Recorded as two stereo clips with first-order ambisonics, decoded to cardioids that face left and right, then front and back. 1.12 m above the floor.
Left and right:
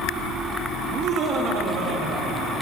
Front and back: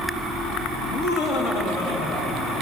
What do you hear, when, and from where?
0.8 s laughter: 35° right, 1.1 m; by 2.6 s 40° right, 3 m